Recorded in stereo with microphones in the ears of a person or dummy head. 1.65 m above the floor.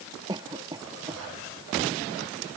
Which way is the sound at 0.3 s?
30° right (ahead or behind).